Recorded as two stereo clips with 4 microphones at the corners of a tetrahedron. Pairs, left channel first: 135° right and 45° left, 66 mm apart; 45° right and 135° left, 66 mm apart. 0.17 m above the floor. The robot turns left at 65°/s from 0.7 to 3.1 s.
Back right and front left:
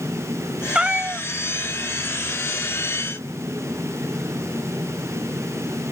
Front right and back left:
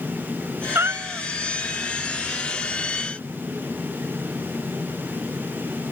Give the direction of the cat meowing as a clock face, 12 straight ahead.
8 o'clock.